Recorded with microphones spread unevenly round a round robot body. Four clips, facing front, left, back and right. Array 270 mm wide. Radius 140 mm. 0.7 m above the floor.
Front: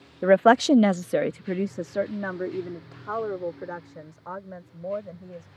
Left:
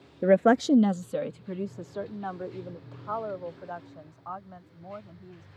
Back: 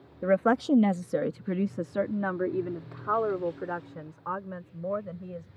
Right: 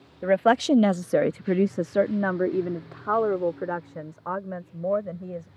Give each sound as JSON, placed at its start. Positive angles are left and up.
{"t": 0.2, "sound": "a woman speaking", "azimuth_deg": 65}